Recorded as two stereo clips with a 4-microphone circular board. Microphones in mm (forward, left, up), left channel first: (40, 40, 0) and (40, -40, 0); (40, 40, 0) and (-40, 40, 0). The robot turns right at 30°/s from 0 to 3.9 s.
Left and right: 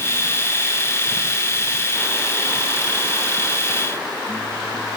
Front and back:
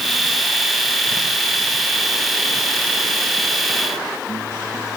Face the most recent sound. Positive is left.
No sound to turn to.